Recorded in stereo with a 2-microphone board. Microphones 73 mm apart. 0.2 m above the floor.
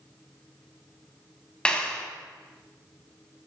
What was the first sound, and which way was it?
A clap, 15° left (ahead or behind).